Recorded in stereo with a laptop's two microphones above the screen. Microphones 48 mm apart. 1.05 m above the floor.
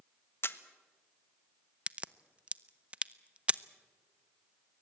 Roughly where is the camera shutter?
Left.